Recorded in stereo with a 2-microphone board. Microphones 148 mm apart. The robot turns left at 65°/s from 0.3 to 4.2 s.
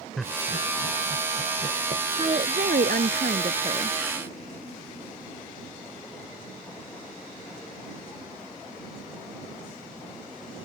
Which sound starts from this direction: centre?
Laughter, at 0.2 s.